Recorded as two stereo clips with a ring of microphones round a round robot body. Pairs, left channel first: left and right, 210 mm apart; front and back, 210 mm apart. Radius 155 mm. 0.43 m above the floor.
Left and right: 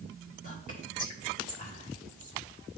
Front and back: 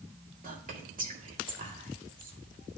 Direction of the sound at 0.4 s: 140° left.